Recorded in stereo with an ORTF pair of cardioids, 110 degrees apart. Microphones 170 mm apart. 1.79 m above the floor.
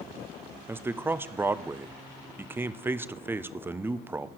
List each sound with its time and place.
0.7 s a man speaking: 10° right, 0.6 m